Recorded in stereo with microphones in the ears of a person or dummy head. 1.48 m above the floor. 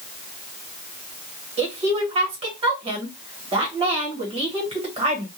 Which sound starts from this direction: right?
A woman speaking, at 1.6 s.